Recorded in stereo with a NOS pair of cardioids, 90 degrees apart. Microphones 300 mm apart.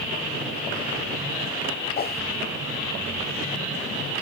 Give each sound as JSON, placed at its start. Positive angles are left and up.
{"t": 2.0, "sound": "a whoosh", "azimuth_deg": 30, "distance_m": 0.9}